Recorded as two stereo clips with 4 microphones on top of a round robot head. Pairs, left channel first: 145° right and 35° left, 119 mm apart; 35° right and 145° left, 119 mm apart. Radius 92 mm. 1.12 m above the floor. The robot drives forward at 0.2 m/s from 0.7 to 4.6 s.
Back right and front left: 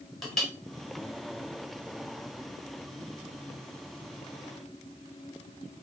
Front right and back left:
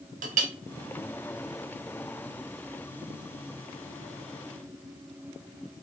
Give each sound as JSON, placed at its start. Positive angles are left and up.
{"t": 0.2, "sound": "a clink", "azimuth_deg": 130, "distance_m": 0.9}